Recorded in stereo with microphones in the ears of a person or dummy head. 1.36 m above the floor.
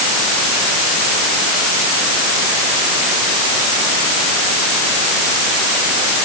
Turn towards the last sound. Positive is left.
No sound to turn to.